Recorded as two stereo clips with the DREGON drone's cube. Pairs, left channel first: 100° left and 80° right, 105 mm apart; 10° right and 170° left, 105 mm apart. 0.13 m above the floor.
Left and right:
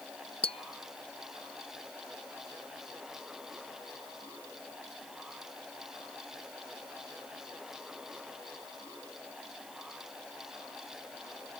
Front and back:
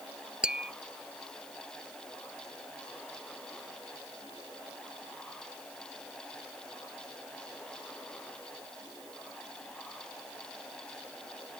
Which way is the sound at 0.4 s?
90° left.